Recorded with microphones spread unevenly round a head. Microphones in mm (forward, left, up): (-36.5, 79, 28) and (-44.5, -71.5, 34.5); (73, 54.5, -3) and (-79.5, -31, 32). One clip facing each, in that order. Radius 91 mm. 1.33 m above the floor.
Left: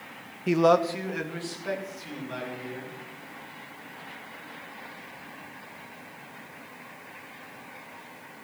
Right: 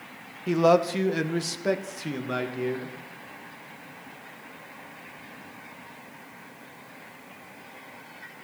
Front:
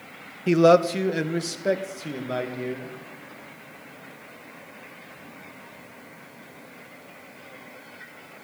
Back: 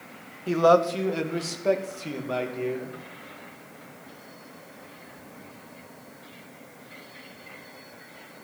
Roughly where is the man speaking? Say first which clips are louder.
Right 1 dB, front 3 dB; ahead.